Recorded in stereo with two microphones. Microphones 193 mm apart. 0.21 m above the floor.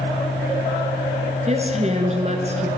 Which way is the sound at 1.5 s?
35° right (ahead or behind).